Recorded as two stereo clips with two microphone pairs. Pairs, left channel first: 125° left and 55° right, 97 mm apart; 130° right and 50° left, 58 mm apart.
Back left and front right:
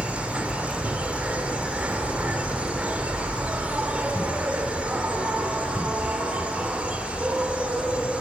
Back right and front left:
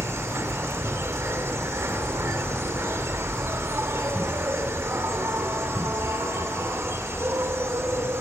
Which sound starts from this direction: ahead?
An insect, at 0.0 s.